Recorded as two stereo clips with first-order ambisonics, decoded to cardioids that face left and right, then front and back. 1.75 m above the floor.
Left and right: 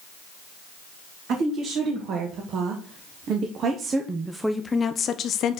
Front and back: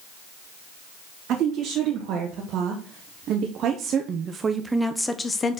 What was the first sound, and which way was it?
A woman speaking, 135° right.